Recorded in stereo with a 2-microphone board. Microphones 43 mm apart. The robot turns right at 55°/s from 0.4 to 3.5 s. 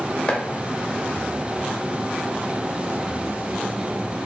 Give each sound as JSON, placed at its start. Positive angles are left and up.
{"t": 0.3, "sound": "chopping", "side_deg": 30, "distance_m": 0.7}